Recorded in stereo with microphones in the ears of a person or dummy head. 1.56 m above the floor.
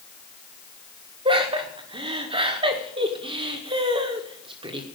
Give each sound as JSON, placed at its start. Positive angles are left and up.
{"t": 1.2, "sound": "laughter", "side_deg": -30, "distance_m": 1.7}